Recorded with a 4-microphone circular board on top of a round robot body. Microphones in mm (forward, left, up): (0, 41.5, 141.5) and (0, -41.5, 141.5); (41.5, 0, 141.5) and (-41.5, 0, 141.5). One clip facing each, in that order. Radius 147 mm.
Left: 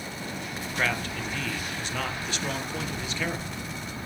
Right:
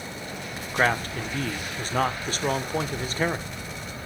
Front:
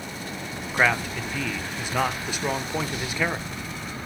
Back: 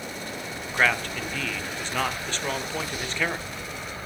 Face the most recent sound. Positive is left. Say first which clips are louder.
# right 6 dB, front 1 dB
turn(degrees=-75)